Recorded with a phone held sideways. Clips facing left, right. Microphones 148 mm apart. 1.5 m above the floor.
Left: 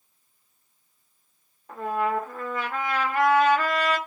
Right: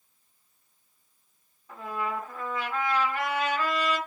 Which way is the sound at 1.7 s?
60° left (ahead or behind).